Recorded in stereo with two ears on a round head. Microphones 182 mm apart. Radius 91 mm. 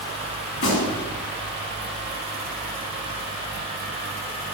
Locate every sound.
0.5 s a gunshot: 70° left (ahead or behind), 4.5 m